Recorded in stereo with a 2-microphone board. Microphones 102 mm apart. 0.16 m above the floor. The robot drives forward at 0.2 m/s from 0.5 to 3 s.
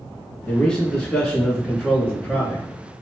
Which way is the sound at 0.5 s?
5° left (ahead or behind).